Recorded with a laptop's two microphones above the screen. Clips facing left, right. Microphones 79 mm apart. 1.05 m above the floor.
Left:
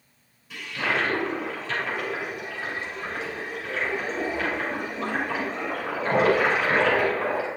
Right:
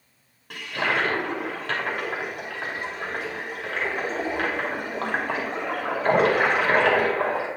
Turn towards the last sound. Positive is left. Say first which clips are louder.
# right 2 dB
turn(degrees=-60)  # may be behind; listen again after turning